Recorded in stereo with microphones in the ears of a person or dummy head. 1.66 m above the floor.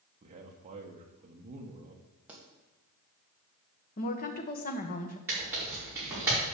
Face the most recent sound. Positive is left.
turn(degrees=-10)  # may be behind; listen again after turning